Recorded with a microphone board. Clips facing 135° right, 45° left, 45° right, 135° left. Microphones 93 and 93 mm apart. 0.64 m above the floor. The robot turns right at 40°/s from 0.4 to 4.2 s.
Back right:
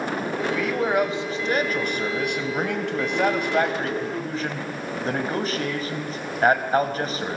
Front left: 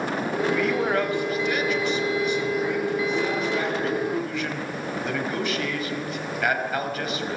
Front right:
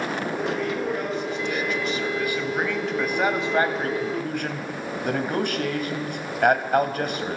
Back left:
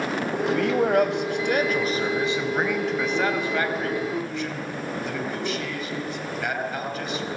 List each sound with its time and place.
0.5 s a man speaking: 130° left, 3.5 m; by 7.4 s 80° right, 3.5 m